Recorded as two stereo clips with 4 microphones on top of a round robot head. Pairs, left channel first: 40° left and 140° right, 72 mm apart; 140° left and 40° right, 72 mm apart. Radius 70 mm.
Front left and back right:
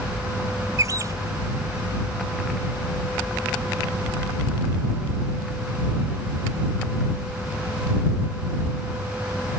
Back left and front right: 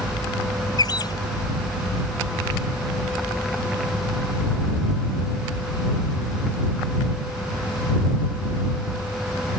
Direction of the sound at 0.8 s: 170° left.